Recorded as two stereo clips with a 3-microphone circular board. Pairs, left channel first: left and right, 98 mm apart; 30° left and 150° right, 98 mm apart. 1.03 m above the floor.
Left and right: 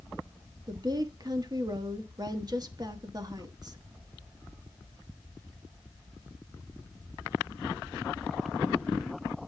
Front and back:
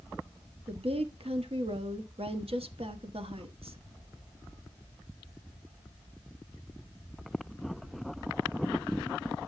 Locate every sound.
0.7 s a woman speaking: 140° right, 1.3 m